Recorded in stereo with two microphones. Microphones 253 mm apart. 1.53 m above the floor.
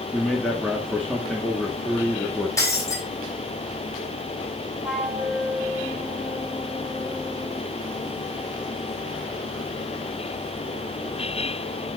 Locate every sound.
0.1 s a man speaking: 5° left (ahead or behind), 1.7 m
2.6 s breaking glass: 15° left (ahead or behind), 4 m
4.8 s a flute: 5° right (ahead or behind), 3.5 m